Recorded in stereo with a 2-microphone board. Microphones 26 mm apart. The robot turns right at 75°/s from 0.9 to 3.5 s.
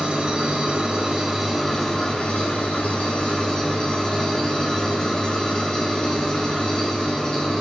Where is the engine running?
45° right, 3.5 m; by 7.6 s 150° left, 3.5 m.